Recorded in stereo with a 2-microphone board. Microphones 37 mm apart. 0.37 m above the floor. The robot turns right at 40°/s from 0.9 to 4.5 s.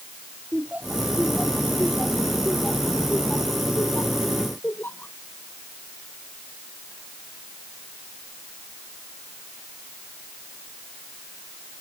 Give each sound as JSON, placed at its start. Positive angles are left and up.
{"t": 0.5, "sound": "laughter", "side_deg": -40}